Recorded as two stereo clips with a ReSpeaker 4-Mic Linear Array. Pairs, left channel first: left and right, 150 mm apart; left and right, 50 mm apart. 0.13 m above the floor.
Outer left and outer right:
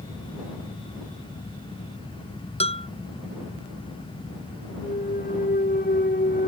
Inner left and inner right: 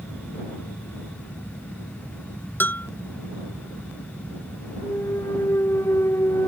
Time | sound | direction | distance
2.6 | a bell | 40° left (ahead or behind) | ?
4.8 | a clunk | 85° left | ?